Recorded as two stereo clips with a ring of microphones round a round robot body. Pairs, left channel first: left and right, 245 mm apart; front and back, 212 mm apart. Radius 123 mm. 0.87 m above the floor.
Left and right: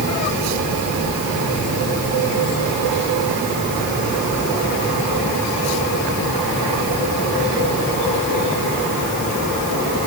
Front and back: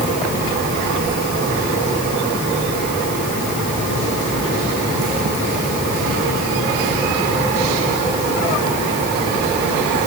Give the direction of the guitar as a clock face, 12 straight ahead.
No guitar in this recording.